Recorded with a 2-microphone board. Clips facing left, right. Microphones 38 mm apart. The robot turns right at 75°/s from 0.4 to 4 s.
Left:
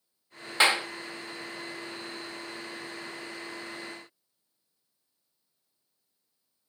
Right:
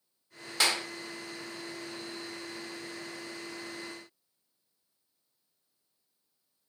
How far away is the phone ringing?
No phone ringing in this recording.